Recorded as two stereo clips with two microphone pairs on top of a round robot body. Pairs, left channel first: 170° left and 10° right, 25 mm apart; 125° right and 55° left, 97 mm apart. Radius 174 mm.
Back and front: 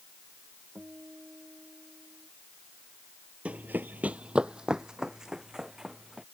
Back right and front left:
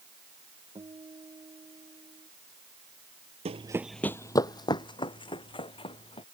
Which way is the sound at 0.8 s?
10° left.